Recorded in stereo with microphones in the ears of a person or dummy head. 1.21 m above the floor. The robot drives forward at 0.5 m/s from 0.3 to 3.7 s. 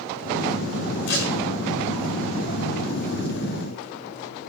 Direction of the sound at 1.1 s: 60° left (ahead or behind).